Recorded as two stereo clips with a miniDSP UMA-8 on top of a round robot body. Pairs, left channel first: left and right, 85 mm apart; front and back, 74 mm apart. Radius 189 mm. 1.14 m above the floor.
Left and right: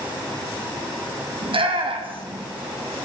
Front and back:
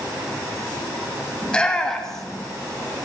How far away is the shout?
About 2.5 m.